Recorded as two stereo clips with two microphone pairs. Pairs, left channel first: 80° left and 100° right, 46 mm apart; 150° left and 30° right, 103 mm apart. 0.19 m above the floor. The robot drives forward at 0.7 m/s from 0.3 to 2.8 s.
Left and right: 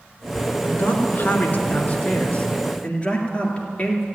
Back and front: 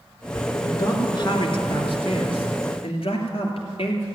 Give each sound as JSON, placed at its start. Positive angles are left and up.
{"t": 0.6, "sound": "a man speaking", "azimuth_deg": 100, "distance_m": 2.0}